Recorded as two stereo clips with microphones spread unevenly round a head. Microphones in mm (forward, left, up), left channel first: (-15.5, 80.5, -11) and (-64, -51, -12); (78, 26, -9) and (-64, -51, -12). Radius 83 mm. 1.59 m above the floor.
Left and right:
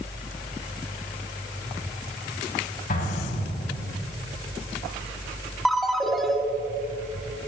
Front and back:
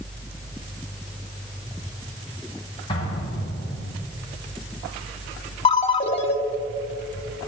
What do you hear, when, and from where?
2.9 s an explosion: 90° left, 5.5 m
5.7 s a ringtone: 20° right, 1.3 m